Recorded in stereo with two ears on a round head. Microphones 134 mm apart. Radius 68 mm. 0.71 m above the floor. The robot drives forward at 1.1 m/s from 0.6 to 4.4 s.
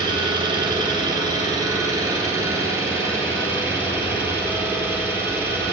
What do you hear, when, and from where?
0.0 s an engine running: 30° right (ahead or behind), 5.5 m; by 5.7 s 20° right (ahead or behind), 9.5 m